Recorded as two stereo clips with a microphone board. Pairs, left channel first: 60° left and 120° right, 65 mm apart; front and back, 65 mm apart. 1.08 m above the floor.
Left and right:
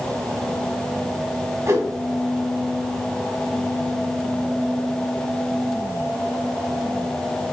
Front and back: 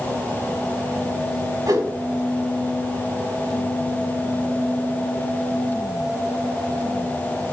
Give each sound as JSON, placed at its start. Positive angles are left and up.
{"t": 1.7, "sound": "a whoosh", "azimuth_deg": -155, "distance_m": 1.2}